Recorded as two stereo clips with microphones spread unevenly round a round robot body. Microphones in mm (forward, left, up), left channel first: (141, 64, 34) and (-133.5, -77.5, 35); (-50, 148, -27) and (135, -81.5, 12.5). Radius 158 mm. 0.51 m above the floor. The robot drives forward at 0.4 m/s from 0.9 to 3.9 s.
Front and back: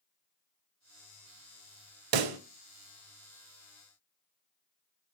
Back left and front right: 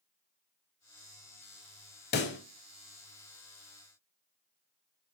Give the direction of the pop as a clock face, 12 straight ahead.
6 o'clock.